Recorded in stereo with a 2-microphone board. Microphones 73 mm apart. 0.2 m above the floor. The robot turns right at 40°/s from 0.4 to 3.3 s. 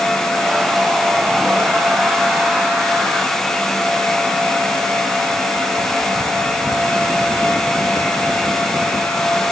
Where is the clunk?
No clunk in this recording.